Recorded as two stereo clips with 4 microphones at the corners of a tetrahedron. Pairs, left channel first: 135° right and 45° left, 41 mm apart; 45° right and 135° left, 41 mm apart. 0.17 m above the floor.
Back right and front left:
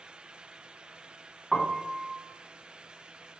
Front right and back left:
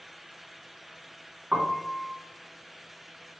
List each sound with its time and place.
1.5 s a piano: 135° left, 0.9 m